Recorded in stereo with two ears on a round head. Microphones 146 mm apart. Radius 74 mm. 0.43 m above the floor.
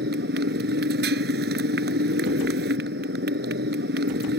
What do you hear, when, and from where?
0.0 s a motorcycle: 75° right (ahead or behind)